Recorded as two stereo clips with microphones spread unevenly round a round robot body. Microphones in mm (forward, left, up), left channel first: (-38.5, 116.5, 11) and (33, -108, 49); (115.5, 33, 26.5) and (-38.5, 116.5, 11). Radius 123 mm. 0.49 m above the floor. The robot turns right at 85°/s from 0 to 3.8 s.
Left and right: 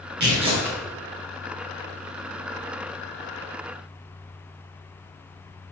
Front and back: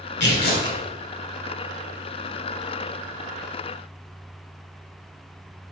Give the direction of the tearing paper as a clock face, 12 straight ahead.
1 o'clock.